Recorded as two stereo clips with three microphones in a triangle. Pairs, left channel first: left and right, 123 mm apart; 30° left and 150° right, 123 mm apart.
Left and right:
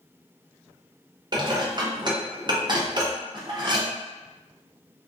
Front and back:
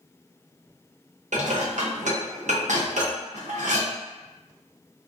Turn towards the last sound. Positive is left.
turn(degrees=-145)